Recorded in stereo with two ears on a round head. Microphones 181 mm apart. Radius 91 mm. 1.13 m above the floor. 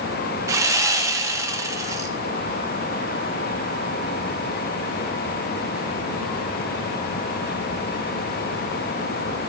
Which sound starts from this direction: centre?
Sawing, at 0.5 s.